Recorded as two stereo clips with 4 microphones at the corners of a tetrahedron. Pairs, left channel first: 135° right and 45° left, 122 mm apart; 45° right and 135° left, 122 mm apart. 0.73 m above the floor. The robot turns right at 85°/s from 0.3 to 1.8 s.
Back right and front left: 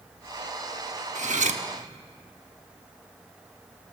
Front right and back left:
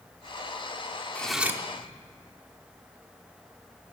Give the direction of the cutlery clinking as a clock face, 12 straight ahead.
11 o'clock.